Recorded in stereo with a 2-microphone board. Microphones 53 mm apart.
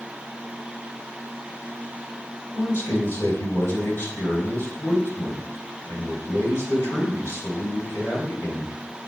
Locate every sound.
2.5 s a man speaking: 50° left (ahead or behind), 2.5 m